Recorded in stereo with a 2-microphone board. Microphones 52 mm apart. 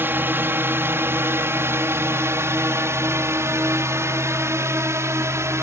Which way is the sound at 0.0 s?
45° right (ahead or behind).